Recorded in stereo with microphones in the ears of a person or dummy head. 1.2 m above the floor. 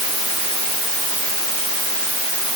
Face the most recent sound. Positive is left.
No sound to turn to.